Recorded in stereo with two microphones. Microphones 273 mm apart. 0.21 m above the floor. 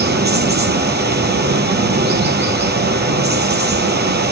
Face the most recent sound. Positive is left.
turn(degrees=-40)  # may be behind; listen again after turning